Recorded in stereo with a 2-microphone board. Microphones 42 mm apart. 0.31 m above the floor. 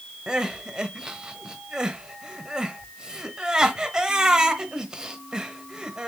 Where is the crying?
15° right (ahead or behind), 0.9 m.